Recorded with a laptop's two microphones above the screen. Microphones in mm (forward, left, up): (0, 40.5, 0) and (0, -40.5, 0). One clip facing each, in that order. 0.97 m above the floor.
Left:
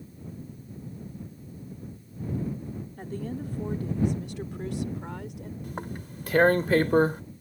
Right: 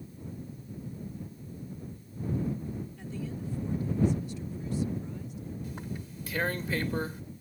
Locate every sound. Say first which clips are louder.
3.0 s a woman speaking: left 4 dB; 50° left (ahead or behind); by 5.5 s 80° left
5.6 s tearing paper: left 3 dB; 55° left (ahead or behind)